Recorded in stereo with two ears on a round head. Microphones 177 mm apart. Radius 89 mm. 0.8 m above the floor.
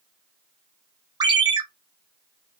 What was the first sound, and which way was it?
A ringtone, 20° right (ahead or behind).